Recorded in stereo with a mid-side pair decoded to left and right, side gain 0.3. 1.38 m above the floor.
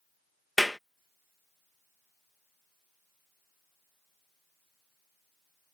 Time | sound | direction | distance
0.6 | a clap | 5° left | ?